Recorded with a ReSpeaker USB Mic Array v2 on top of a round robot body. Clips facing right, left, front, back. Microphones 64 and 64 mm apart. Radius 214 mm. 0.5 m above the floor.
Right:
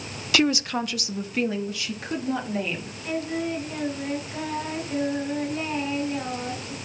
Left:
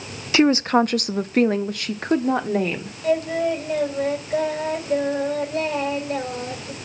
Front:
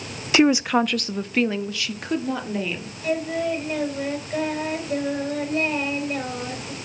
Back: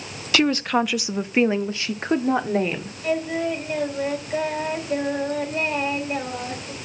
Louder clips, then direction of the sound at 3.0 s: Left 8 dB, even; 100° left.